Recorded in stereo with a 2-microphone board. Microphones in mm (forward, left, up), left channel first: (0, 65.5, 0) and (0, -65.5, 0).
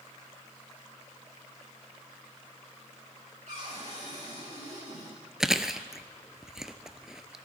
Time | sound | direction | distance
3.5 | a cupboard door | 65° right (ahead or behind) | 7.5 m
5.4 | chewing | 5° right (ahead or behind) | 0.6 m